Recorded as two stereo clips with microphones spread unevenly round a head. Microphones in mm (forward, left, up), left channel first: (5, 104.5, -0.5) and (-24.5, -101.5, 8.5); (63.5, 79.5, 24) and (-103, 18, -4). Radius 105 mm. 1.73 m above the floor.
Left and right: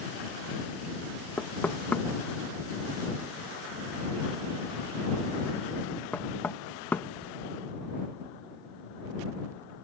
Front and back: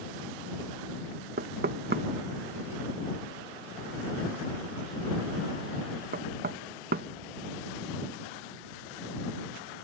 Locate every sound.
1.4 s knocking: 165° left